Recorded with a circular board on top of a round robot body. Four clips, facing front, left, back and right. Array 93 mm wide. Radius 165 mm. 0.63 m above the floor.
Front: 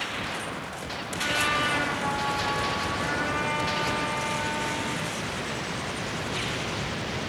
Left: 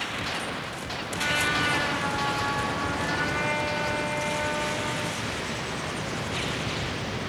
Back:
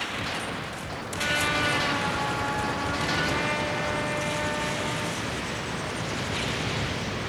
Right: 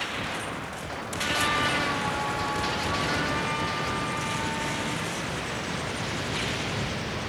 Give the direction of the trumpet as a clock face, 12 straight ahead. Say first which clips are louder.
Even, even; 7 o'clock.